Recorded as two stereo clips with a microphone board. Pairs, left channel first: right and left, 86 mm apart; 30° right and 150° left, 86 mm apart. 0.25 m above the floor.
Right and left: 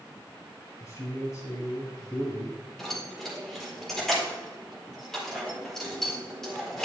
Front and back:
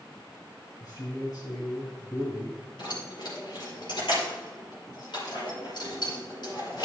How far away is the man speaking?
About 1.9 m.